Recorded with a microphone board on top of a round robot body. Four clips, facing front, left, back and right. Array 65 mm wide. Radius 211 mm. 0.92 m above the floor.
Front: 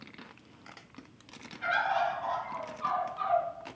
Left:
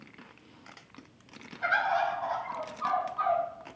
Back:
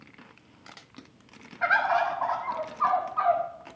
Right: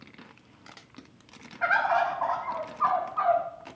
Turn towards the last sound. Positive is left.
turn(degrees=-140)